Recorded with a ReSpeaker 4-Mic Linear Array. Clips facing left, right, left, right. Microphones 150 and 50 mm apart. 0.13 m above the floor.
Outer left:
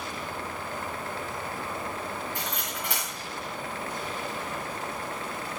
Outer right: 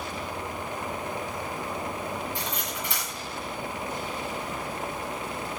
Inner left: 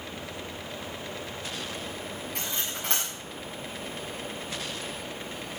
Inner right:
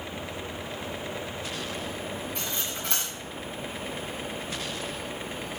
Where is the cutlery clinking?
65° left (ahead or behind), 10 m.